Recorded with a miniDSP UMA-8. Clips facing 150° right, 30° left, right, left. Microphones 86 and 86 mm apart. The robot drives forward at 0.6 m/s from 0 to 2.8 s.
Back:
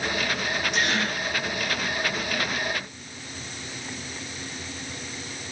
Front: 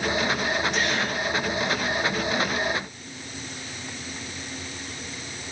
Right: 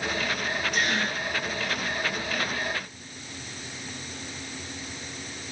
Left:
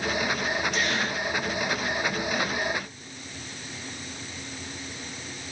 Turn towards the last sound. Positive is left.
turn(degrees=-145)